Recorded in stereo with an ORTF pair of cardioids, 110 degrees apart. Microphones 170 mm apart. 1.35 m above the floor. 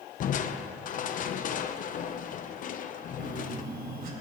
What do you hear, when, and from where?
0.2 s crushing: 50° left, 0.9 m
3.2 s a phone buzzing: 55° right, 3 m